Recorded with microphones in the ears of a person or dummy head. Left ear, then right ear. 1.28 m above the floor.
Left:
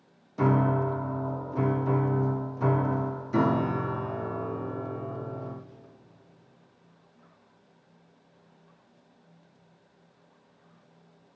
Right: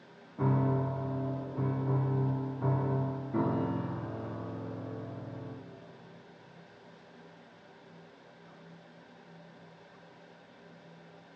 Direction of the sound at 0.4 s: 75° left (ahead or behind).